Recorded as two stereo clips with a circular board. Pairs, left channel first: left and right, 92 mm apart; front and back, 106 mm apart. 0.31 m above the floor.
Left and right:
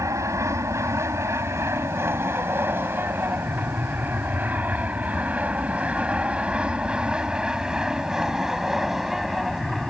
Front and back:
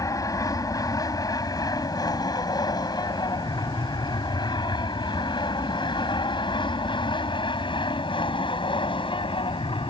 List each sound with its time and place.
0.0 s an aircraft: 45° right; by 9.9 s straight ahead